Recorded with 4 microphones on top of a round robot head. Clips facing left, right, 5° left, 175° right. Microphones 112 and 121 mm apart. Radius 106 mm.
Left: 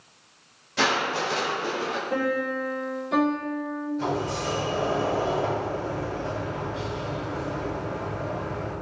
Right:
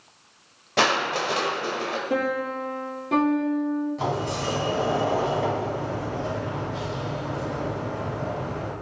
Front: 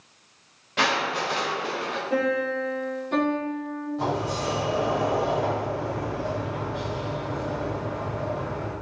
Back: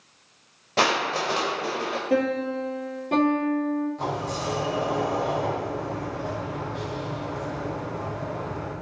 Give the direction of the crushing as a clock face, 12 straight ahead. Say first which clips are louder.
Right 2 dB, back 2 dB; 4 o'clock.